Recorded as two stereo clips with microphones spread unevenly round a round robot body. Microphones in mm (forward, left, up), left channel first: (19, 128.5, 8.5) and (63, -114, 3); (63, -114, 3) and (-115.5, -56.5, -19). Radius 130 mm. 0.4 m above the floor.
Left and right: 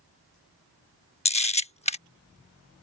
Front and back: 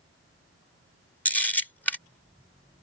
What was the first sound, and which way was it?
A camera shutter, 70° left.